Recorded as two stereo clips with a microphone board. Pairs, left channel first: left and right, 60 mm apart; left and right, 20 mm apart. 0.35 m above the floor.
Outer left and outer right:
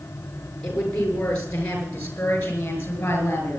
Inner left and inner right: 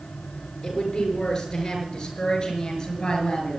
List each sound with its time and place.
0.6 s a woman speaking: 15° left (ahead or behind), 6 m; by 3.6 s 30° left (ahead or behind), 6 m